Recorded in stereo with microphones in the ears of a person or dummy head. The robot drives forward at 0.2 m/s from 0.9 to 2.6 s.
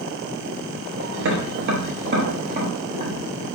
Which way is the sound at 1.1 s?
65° right (ahead or behind).